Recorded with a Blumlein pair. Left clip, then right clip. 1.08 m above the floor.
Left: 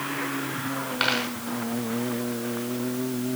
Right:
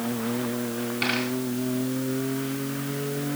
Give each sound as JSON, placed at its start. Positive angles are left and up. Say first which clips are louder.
{"t": 1.0, "sound": "a dropped coin", "louder": "left 2 dB", "azimuth_deg": 45, "distance_m": 6.5}